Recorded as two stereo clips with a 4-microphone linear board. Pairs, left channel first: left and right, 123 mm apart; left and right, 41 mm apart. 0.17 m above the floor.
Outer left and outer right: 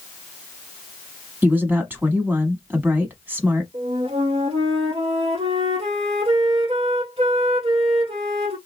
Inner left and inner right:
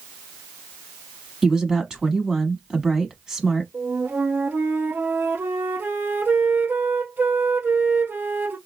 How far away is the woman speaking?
About 1.0 m.